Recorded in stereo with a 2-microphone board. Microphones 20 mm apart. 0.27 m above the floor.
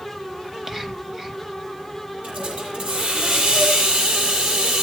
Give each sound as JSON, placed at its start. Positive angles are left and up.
{"t": 0.4, "sound": "whispering", "side_deg": -20, "distance_m": 1.5}
{"t": 2.2, "sound": "a hiss", "side_deg": -80, "distance_m": 8.5}